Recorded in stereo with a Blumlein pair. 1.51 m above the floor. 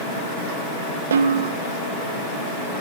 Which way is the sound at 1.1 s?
65° right.